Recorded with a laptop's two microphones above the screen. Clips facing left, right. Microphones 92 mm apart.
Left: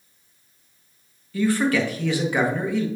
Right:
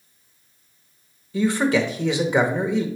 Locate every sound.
1.3 s a man speaking: 20° right (ahead or behind), 0.8 m